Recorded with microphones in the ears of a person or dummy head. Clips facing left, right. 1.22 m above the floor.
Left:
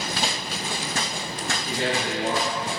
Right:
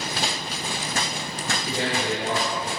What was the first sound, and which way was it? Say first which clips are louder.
A man speaking: even; 60° right (ahead or behind).